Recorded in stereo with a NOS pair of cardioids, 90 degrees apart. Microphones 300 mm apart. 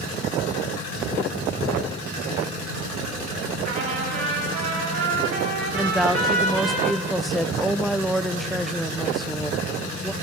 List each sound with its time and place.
3.6 s a trumpet: 45° right, 9.5 m
5.8 s a woman speaking: straight ahead, 0.7 m